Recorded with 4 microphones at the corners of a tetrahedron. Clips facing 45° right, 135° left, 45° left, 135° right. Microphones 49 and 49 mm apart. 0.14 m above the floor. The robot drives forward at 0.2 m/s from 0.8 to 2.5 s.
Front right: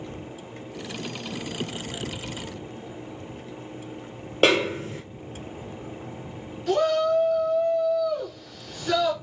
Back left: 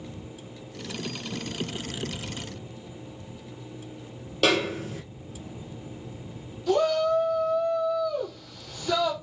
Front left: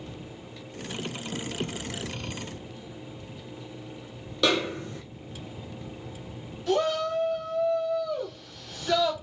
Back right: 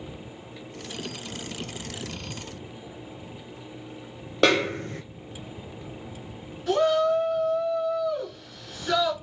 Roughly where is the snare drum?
Right.